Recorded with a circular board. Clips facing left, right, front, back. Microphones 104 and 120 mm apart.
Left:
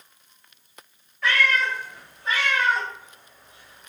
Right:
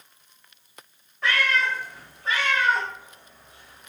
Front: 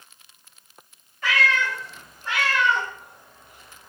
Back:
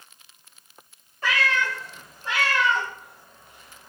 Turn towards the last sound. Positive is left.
turn(degrees=-40)